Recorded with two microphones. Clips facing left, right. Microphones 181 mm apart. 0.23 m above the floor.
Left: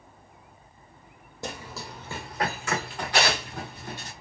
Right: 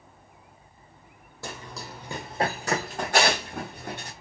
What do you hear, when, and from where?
1.4 s running footsteps: 20° left (ahead or behind), 0.6 m; by 4.1 s 60° right (ahead or behind), 1.5 m